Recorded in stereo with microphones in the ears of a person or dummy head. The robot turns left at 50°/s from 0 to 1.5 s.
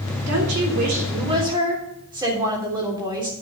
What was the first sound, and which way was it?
A woman speaking, 100° right.